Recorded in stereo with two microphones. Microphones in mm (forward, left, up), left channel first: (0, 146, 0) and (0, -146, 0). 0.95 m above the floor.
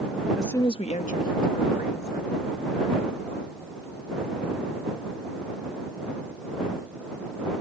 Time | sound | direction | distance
0.4 | a woman speaking | 5° right (ahead or behind) | ?